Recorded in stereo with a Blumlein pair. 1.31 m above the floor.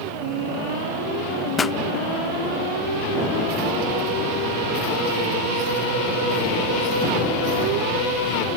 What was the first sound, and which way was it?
A pop, 15° left.